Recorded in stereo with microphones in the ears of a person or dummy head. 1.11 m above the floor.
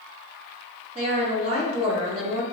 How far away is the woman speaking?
About 1.2 m.